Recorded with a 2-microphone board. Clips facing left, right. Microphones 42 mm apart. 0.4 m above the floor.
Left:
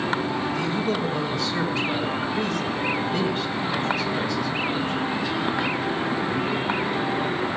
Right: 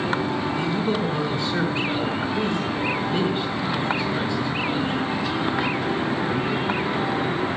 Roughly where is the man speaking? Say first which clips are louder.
Right 1 dB; right.